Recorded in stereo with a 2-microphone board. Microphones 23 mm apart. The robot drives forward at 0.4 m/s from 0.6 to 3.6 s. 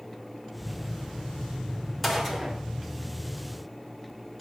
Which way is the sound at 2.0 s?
10° left (ahead or behind).